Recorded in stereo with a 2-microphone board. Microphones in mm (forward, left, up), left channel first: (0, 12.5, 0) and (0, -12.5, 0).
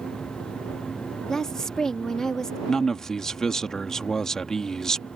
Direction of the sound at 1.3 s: 25° left (ahead or behind).